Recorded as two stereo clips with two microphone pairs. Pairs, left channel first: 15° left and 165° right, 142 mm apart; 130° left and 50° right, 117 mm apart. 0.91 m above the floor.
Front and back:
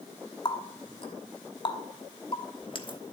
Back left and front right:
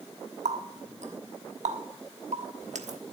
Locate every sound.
0.5 s a running tap: 40° right, 1.2 m